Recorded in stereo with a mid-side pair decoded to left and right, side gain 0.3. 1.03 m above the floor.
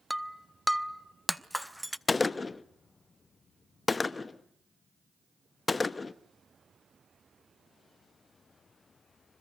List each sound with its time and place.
0.1 s breaking glass: straight ahead, 0.8 m
2.1 s a gunshot: 40° left, 0.8 m